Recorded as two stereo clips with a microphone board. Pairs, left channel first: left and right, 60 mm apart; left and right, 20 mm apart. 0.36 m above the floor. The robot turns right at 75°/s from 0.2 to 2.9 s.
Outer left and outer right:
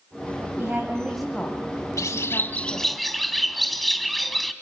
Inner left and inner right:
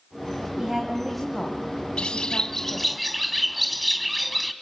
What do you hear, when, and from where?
0.6 s a woman speaking: 50° right, 2.5 m; by 3.0 s 125° left, 2.5 m
2.0 s a bird: 110° left, 1.0 m; by 4.5 s straight behind, 1.0 m